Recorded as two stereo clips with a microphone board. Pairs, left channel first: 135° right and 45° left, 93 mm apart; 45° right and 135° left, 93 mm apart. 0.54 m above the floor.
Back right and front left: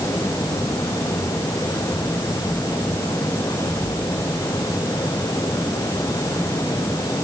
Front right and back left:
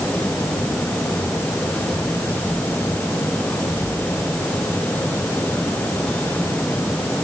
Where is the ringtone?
I don't hear a ringtone.